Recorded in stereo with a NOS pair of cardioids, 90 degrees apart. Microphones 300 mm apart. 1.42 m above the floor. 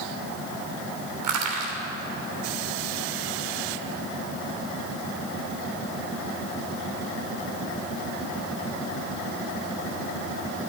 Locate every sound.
1.2 s crushing: 70° right, 3 m